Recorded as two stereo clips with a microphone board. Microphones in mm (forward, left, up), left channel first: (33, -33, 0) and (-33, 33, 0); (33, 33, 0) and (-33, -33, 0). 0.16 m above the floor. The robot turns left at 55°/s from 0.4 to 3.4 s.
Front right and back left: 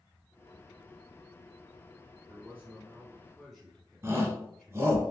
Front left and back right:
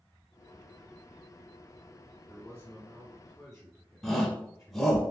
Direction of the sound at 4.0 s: 130° left.